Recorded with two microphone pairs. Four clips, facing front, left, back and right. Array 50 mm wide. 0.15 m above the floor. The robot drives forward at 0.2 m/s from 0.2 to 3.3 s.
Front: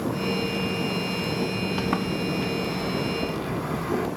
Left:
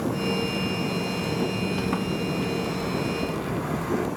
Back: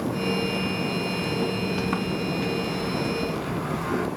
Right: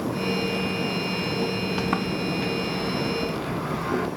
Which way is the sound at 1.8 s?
65° right.